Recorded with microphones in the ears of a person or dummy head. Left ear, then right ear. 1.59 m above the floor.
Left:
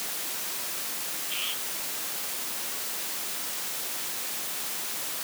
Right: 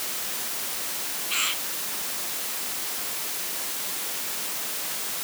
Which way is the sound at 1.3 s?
45° right (ahead or behind).